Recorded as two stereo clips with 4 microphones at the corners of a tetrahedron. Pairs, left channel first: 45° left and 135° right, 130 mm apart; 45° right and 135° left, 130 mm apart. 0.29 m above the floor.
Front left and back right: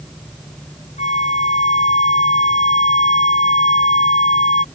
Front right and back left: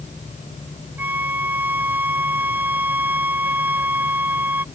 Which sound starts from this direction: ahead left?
A flute, at 1.0 s.